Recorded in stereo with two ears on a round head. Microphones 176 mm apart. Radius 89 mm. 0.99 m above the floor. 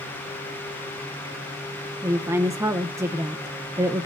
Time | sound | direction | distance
2.0 | a woman speaking | 15° right (ahead or behind) | 0.8 m